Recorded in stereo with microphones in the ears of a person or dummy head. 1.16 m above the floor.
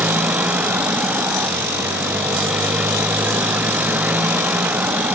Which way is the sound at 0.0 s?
5° right (ahead or behind).